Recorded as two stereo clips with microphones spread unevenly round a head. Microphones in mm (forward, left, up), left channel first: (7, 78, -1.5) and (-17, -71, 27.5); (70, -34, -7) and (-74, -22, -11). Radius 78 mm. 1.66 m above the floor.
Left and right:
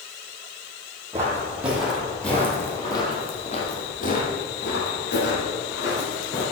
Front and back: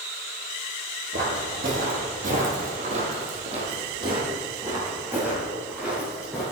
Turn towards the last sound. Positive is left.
turn(degrees=90)